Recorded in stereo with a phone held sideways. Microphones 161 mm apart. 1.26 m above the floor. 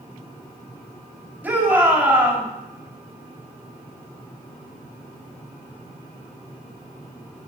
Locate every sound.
1.4 s a shout: 10° right (ahead or behind), 4 m